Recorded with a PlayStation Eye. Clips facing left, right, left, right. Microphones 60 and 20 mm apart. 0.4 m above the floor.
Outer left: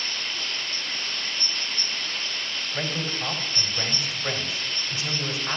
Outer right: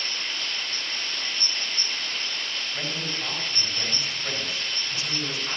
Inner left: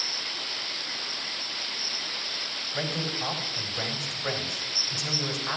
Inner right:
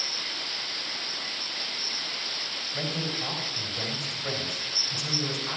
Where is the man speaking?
25° left (ahead or behind), 3.5 m.